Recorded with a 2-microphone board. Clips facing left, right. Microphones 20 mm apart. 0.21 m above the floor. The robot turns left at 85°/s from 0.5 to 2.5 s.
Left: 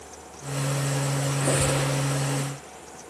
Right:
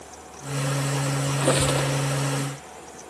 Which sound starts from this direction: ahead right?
A squeak, at 1.3 s.